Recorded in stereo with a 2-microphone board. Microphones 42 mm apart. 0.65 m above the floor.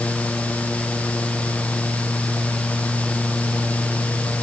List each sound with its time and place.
Only background noise.